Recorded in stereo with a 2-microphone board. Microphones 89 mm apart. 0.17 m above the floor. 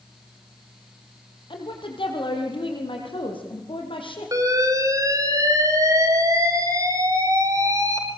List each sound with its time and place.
1.5 s a woman speaking: 70° left (ahead or behind), 6 m; by 4.3 s 80° left, 7.5 m
4.3 s an alarm: 40° right (ahead or behind), 5 m